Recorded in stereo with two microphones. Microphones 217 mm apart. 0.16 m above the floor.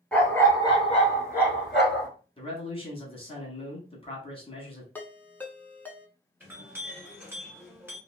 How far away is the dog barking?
About 1.3 m.